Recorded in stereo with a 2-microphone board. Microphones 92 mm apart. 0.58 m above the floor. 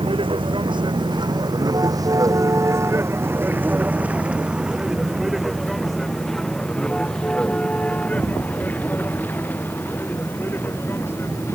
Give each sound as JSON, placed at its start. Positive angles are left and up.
{"t": 0.0, "sound": "a vehicle", "side_deg": -65}